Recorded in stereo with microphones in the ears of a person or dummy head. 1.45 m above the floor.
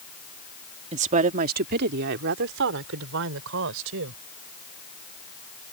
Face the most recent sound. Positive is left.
turn(degrees=-70)  # may be behind; listen again after turning